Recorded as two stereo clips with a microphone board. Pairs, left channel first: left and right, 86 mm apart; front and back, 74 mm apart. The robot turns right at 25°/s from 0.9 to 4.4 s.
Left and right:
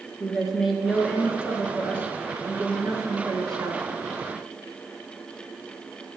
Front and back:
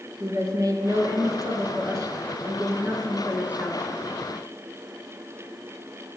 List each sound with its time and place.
0.2 s a woman speaking: 175° right, 2 m; by 3.8 s 105° right, 2 m